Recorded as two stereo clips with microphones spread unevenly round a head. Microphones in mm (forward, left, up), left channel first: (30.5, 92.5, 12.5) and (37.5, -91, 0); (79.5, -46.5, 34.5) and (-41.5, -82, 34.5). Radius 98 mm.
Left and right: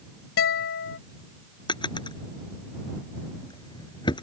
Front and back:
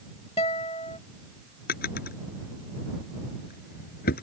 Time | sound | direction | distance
0.4 | a guitar | 80° left | ?
1.7 | a drawer | 25° left | ?